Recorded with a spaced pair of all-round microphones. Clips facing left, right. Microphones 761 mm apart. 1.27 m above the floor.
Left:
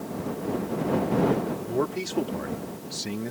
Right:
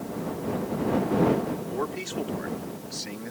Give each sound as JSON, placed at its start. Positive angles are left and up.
{"t": 1.7, "sound": "a man speaking", "side_deg": 60}